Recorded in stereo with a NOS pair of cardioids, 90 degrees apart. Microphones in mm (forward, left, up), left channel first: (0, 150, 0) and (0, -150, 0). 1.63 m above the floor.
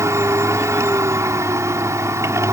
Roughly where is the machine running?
Ahead.